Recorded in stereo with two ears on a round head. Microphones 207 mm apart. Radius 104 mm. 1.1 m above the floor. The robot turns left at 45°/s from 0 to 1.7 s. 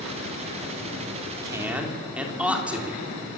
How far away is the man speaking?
About 3 m.